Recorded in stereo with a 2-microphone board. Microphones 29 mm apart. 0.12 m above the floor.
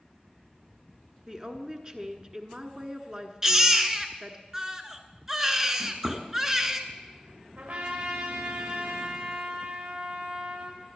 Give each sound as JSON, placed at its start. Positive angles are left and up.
{"t": 1.3, "sound": "a woman speaking", "side_deg": -25, "distance_m": 1.2}
{"t": 3.4, "sound": "a baby crying", "side_deg": -15, "distance_m": 1.0}
{"t": 5.8, "sound": "a drawer", "side_deg": -60, "distance_m": 3.0}
{"t": 7.6, "sound": "a trumpet", "side_deg": -75, "distance_m": 4.5}